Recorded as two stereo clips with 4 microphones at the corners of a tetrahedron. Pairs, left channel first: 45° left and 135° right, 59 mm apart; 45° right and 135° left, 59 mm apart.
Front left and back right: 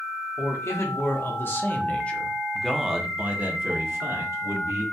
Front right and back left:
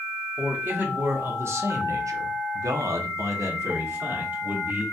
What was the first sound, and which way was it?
A man speaking, 80° left.